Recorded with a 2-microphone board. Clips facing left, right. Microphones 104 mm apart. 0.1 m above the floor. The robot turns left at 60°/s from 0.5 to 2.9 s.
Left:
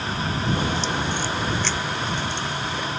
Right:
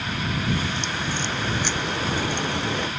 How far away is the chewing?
No chewing in this recording.